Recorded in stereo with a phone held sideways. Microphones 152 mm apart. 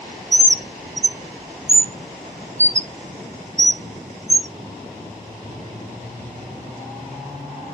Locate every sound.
0.3 s a bird: 50° right (ahead or behind), 0.6 m